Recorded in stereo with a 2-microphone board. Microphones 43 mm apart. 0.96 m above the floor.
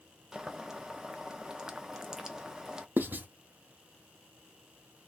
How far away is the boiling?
About 0.5 m.